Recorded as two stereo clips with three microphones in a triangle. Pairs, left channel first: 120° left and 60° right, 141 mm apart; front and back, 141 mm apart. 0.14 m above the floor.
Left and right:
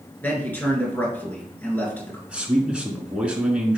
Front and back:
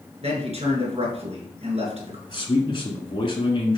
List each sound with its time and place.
0.2 s a man speaking: 170° right, 2.0 m
2.3 s a man speaking: 15° left, 1.4 m